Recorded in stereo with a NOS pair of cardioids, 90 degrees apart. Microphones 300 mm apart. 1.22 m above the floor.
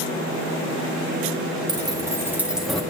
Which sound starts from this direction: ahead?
Keys jangling, at 1.7 s.